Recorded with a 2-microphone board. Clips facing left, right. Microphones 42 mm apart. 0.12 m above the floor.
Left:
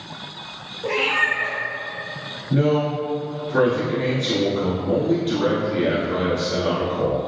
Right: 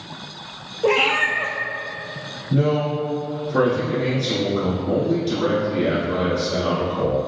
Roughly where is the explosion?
No explosion in this recording.